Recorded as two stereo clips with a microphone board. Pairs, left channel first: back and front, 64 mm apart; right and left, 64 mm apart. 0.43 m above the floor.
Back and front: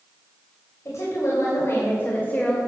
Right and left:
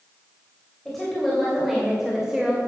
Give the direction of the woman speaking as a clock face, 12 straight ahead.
6 o'clock.